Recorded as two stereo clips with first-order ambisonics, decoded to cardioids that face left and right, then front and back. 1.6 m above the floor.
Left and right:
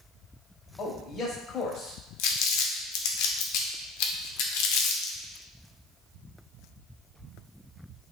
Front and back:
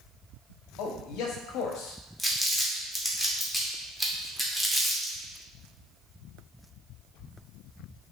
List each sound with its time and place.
0.8 s a man speaking: 25° left, 0.7 m
2.2 s crumpling: 90° left, 0.6 m